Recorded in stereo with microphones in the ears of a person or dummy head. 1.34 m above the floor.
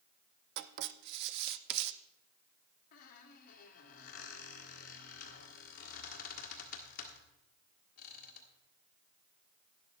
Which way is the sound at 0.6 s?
55° right (ahead or behind).